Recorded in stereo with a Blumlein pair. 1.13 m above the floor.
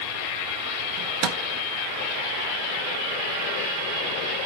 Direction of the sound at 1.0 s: 40° right.